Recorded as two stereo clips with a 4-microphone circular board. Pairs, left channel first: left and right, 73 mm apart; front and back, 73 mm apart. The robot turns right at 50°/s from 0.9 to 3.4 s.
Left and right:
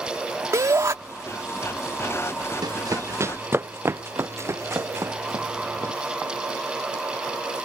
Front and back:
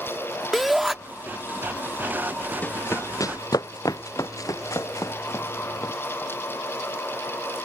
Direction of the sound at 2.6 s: 65° right.